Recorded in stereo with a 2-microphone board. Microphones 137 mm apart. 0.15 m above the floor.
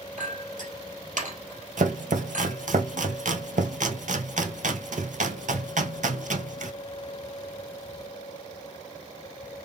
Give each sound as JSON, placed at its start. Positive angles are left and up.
{"t": 0.2, "sound": "a clink", "side_deg": -70, "distance_m": 2.5}
{"t": 1.8, "sound": "chopping", "side_deg": -70, "distance_m": 0.7}